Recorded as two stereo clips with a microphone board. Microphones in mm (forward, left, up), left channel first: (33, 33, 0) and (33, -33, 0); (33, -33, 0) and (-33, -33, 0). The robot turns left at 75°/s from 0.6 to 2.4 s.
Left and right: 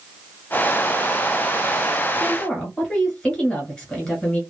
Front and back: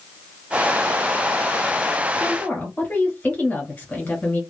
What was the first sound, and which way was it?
A woman speaking, 45° left.